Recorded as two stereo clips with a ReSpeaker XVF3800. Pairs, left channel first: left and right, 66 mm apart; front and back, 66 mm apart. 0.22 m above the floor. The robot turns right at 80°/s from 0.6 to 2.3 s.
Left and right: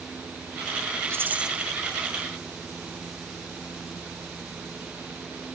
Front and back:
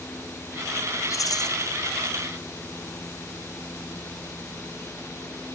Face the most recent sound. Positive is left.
turn(degrees=55)